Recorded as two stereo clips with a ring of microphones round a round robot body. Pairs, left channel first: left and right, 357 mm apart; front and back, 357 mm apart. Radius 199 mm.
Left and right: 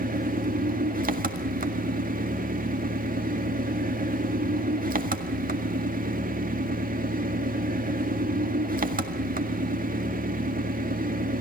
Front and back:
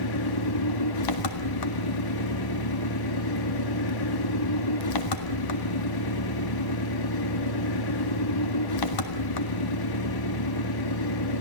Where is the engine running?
25° right, 1.8 m.